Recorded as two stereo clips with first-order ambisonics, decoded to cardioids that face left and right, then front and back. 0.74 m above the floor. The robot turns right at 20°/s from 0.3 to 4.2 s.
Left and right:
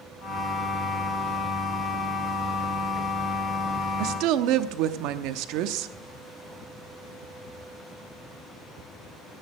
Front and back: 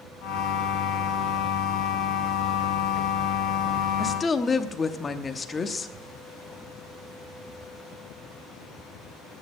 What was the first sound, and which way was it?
A woman speaking, 75° right.